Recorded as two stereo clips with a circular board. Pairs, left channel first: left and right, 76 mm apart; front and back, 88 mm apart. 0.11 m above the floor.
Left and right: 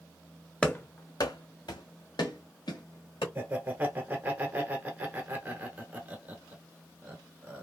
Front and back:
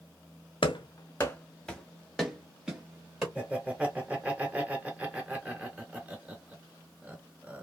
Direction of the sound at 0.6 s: 15° left.